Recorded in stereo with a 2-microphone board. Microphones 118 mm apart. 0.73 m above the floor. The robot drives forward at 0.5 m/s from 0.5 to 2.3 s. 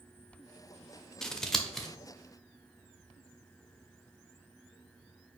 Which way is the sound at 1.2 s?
5° left (ahead or behind).